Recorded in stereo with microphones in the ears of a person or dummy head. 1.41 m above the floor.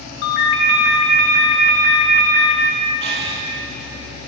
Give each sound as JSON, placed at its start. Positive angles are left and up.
{"t": 0.2, "sound": "a ringtone", "side_deg": 65, "distance_m": 3.0}
{"t": 3.0, "sound": "breathing", "side_deg": -30, "distance_m": 1.1}